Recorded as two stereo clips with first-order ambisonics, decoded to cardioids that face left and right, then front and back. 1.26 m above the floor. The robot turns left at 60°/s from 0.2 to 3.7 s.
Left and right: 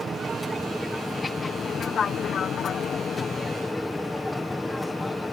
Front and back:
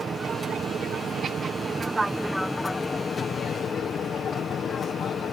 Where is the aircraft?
140° right; by 5.3 s 10° left.